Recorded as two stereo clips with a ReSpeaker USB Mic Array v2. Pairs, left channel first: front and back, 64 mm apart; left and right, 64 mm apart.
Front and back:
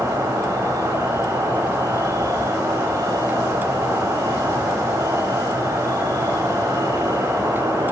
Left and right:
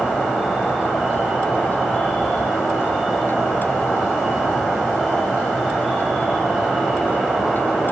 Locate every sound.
0.0 s an insect: 175° right, 3 m